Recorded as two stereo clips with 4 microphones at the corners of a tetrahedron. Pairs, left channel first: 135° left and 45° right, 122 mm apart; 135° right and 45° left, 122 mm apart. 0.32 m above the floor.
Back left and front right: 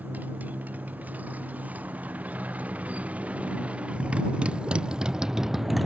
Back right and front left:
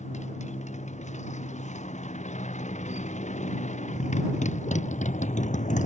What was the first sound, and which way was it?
A motorcycle, 120° right.